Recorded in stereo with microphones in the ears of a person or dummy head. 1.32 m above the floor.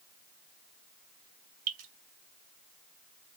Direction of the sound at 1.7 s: 70° right (ahead or behind).